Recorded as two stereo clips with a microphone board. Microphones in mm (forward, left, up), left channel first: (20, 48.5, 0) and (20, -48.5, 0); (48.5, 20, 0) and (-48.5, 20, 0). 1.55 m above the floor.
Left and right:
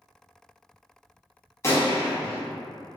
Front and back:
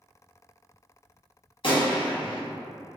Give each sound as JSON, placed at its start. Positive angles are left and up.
{"t": 1.6, "sound": "a gunshot", "azimuth_deg": 30, "distance_m": 0.8}